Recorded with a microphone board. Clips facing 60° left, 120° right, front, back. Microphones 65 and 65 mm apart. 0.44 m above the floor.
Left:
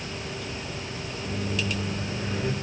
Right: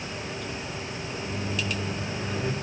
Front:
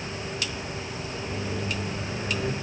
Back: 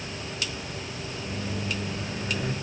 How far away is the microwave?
About 1.4 m.